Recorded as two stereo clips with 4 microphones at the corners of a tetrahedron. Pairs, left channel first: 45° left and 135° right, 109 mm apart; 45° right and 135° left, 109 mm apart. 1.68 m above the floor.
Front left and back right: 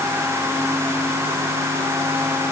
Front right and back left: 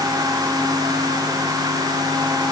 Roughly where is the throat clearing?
I don't hear throat clearing.